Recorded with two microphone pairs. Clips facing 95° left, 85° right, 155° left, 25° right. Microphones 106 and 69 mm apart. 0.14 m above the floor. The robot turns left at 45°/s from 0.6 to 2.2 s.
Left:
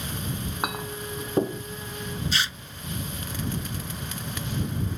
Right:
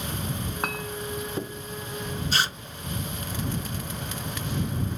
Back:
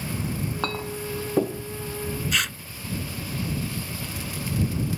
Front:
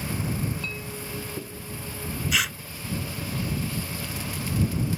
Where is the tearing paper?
110° right.